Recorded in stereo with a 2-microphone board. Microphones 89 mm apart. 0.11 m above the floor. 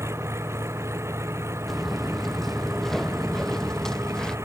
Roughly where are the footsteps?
Centre.